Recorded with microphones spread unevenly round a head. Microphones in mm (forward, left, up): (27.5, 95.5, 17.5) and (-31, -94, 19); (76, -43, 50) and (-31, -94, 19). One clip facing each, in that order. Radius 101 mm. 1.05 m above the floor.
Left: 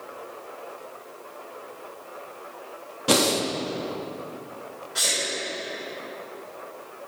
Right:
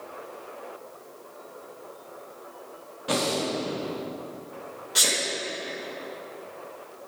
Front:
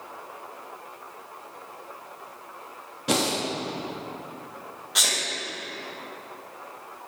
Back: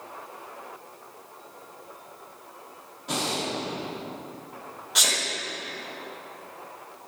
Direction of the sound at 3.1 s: 45° left.